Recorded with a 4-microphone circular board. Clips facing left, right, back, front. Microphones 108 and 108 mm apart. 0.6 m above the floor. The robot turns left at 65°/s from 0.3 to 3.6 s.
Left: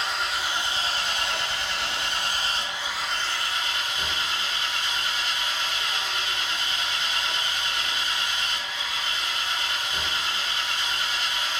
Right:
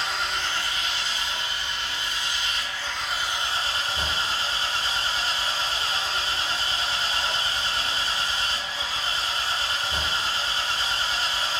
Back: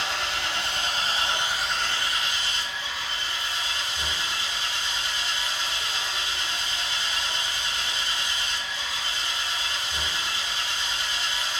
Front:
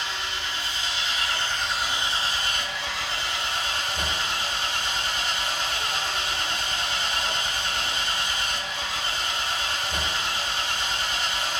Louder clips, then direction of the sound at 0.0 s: Even, back 3 dB; straight behind.